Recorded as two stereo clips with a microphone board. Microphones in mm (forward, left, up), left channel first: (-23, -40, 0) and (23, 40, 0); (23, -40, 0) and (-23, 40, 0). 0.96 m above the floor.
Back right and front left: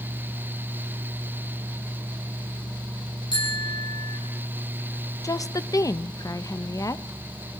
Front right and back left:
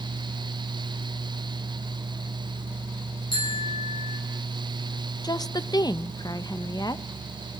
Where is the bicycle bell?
90° right, 7 m.